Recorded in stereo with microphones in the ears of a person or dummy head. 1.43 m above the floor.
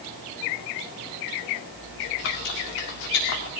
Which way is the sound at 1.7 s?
55° left (ahead or behind).